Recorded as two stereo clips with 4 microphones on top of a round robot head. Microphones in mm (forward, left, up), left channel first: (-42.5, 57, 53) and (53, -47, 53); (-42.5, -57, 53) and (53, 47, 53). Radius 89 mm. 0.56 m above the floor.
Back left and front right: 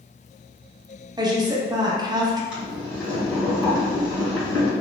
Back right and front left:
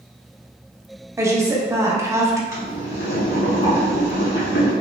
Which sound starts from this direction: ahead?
A woman speaking, at 1.2 s.